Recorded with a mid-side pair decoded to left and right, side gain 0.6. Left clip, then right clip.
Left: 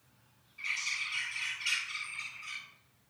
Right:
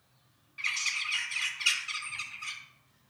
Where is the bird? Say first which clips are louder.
Right 3 dB; 55° right, 2.5 m.